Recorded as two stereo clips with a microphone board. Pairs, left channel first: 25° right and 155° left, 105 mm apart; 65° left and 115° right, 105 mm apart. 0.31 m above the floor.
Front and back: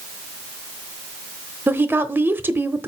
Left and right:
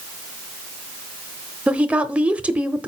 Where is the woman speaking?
170° right, 0.9 m.